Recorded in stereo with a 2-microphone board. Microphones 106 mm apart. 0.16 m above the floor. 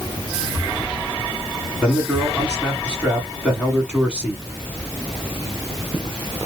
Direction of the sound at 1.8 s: 10° right (ahead or behind).